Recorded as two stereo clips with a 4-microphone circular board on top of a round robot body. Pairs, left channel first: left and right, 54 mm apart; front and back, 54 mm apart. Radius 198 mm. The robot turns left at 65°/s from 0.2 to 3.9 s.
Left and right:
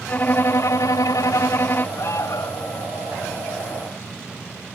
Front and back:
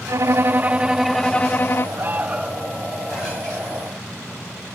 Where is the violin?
150° left; by 1.9 s 40° left.